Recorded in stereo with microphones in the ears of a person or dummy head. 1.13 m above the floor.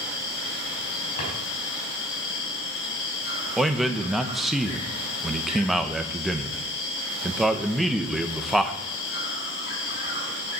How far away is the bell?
I don't hear a bell.